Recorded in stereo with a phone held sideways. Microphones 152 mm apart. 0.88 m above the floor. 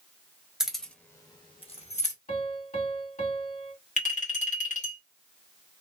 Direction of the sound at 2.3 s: 55° left (ahead or behind).